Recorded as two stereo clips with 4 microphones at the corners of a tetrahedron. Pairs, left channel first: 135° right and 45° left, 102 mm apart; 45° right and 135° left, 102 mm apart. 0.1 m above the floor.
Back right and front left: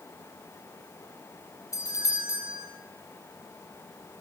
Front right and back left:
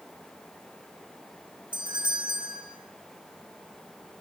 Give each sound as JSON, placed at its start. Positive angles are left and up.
{"t": 1.7, "sound": "a doorbell", "azimuth_deg": 170, "distance_m": 5.0}